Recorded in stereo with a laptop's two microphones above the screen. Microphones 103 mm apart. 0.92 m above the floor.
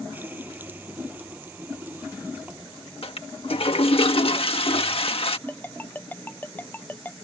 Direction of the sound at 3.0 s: 65° left (ahead or behind).